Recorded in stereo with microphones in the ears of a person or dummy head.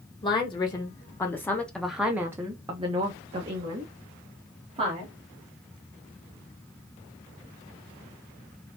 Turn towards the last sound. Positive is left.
turn(degrees=-30)  # may be behind; listen again after turning